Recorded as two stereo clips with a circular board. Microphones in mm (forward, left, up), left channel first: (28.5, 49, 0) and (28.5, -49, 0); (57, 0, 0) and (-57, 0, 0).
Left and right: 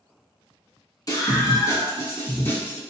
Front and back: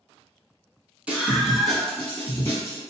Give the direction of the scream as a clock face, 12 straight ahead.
8 o'clock.